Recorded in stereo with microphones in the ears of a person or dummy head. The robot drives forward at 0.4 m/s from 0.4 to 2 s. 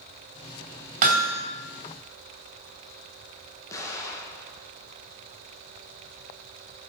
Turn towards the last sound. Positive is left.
turn(degrees=15)  # may be behind; listen again after turning